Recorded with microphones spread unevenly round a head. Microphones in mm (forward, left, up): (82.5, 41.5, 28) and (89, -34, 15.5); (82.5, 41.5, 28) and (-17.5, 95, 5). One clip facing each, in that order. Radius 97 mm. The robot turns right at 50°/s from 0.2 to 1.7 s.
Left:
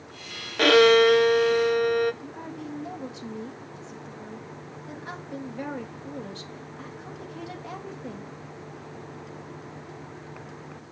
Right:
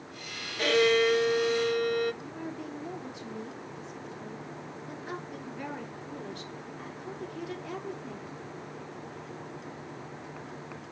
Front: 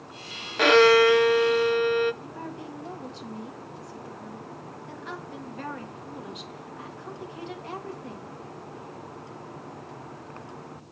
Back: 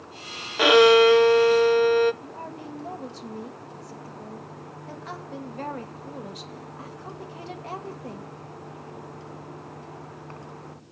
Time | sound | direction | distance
0.6 | a violin | 80° left | 0.5 m
2.2 | a woman speaking | 105° left | 1.9 m